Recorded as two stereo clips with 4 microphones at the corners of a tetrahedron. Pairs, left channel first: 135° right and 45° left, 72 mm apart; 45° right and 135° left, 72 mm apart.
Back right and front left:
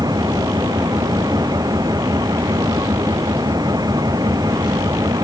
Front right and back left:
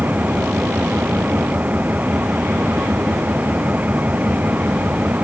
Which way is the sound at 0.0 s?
65° left.